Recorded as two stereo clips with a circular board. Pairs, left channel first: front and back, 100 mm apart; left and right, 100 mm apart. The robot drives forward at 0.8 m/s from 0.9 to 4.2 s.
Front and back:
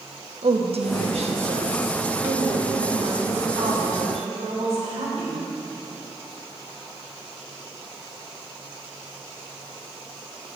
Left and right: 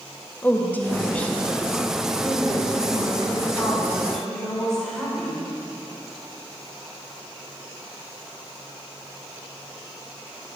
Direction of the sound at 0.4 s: 165° left.